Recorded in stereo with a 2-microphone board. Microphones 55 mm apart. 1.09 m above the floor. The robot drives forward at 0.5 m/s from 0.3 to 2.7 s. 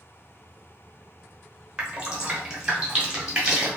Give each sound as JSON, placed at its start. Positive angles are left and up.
{"t": 1.8, "sound": "dripping", "side_deg": -20, "distance_m": 0.9}